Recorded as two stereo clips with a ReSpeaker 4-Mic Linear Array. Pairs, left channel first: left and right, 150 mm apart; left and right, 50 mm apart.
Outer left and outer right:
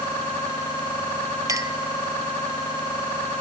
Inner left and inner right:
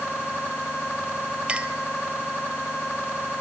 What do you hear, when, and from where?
1.5 s a clink: 20° right (ahead or behind), 0.8 m